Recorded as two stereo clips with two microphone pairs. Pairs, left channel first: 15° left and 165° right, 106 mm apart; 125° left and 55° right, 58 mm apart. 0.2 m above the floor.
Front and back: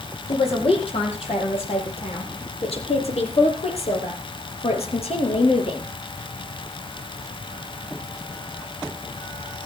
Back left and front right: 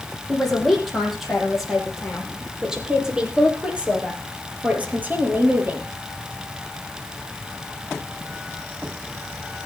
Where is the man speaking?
40° left, 8.5 m; by 5.8 s straight ahead, 5.5 m.